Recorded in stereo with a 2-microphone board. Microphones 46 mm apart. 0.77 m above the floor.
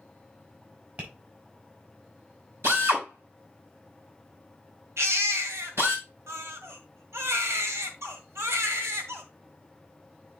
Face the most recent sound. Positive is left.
turn(degrees=-80)